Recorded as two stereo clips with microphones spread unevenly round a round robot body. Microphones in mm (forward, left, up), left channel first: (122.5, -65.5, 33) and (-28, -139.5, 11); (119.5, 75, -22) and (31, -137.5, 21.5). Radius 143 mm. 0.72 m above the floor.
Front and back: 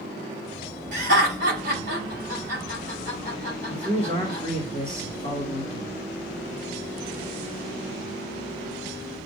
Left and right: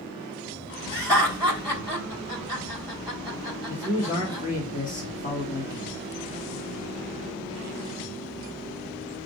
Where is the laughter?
150° left, 3 m.